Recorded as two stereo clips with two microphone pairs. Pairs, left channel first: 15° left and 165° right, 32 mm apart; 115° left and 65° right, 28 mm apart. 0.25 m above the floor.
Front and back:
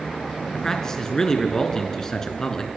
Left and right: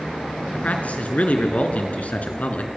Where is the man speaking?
85° left, 4 m.